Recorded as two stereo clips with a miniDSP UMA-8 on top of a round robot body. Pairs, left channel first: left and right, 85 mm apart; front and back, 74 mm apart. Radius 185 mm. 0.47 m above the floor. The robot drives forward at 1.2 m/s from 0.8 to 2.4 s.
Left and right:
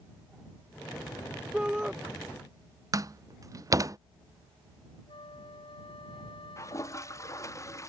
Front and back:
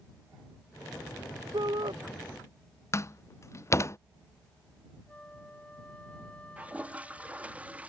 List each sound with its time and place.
1.5 s a shout: 170° right
2.9 s a door slam: 50° right
5.1 s a flute: 75° left
6.6 s a toilet flushing: 115° left